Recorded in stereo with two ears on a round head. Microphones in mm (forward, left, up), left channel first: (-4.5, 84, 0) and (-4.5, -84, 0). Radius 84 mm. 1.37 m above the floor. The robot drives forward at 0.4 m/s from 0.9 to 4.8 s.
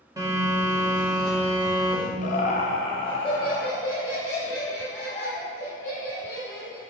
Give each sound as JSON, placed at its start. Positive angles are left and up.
{"t": 0.2, "sound": "a phone buzzing", "side_deg": -20, "distance_m": 1.5}
{"t": 2.2, "sound": "laughter", "side_deg": 45, "distance_m": 0.7}